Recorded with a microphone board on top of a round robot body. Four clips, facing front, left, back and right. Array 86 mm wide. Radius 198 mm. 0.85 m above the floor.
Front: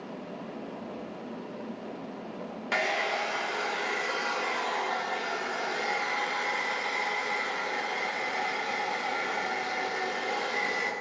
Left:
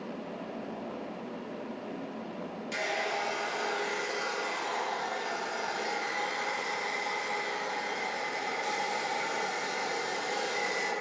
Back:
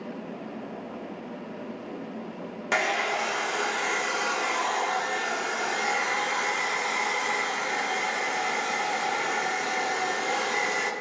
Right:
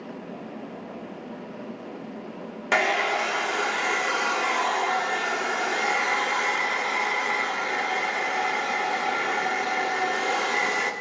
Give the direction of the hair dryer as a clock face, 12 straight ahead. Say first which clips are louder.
Right 10 dB, back 3 dB; 4 o'clock.